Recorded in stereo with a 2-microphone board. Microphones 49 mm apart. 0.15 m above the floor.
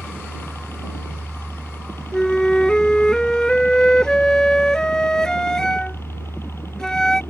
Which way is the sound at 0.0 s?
55° left (ahead or behind).